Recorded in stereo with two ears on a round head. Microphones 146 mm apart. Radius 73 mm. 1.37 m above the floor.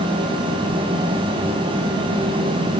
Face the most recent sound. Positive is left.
No sound to turn to.